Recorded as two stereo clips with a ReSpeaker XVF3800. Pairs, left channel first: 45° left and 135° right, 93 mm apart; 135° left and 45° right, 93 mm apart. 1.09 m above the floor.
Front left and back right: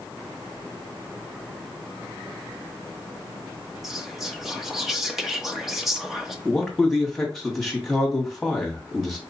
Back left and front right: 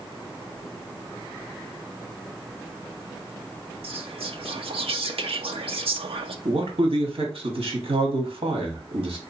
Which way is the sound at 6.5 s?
45° right.